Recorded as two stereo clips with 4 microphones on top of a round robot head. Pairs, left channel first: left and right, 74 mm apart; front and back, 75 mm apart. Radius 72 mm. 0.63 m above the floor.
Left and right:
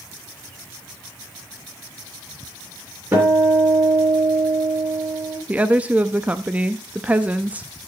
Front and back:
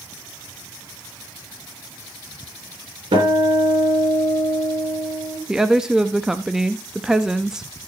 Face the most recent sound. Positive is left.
turn(degrees=-110)